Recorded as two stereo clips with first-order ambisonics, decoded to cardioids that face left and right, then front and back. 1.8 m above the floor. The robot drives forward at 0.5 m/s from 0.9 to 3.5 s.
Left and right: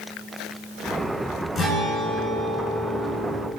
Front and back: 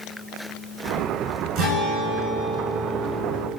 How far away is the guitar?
About 7 m.